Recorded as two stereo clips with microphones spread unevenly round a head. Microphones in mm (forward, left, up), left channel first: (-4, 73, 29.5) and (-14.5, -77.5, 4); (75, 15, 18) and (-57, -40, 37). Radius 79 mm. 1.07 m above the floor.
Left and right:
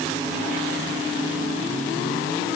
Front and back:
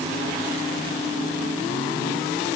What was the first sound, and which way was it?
Only background noise.